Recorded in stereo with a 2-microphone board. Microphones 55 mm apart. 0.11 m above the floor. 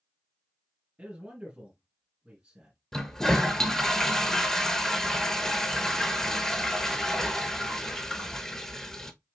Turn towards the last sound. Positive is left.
turn(degrees=10)  # may be behind; listen again after turning